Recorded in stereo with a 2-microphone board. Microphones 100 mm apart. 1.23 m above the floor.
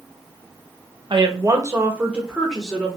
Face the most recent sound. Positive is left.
turn(degrees=5)  # may be behind; listen again after turning